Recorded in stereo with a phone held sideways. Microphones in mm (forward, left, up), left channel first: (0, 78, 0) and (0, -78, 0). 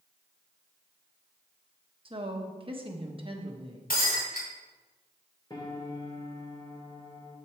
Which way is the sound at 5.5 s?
30° left (ahead or behind).